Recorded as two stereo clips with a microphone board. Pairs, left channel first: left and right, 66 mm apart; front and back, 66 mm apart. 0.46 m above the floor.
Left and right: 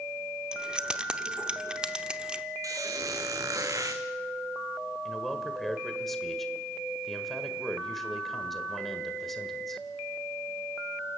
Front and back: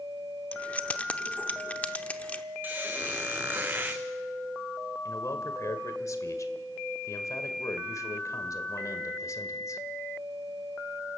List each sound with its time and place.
0.5 s keys jangling: 35° right, 0.8 m
2.6 s a squeak: 120° right, 1.5 m
5.0 s a man speaking: 5° left, 1.7 m